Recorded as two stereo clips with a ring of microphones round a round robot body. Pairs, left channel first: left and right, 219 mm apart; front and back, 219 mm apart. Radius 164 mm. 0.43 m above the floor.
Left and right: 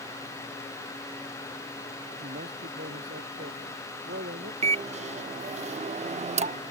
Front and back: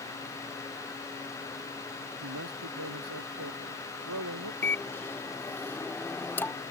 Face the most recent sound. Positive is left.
turn(degrees=-70)